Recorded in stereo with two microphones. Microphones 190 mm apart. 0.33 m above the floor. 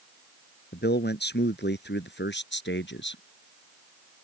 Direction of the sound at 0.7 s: 60° left (ahead or behind).